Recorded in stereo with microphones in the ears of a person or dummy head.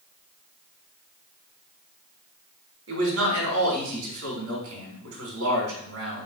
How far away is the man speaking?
About 3.5 m.